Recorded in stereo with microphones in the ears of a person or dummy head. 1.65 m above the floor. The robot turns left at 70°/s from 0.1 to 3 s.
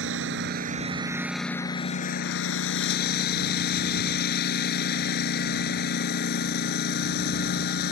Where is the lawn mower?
85° right; by 7.9 s 70° left.